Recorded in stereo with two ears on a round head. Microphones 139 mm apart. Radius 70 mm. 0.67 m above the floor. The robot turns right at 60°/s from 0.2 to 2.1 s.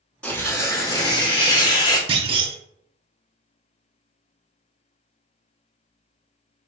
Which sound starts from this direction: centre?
Tearing paper, at 0.2 s.